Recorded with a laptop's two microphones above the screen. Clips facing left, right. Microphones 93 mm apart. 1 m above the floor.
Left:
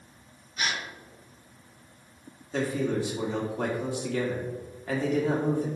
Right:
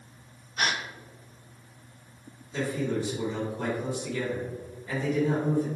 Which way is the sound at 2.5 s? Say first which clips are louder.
Left 2 dB; 65° left (ahead or behind).